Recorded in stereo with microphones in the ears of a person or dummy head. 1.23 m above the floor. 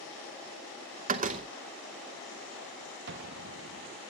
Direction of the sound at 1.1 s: 40° right (ahead or behind).